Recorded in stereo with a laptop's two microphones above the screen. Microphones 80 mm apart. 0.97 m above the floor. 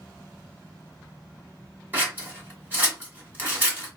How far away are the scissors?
About 1.3 m.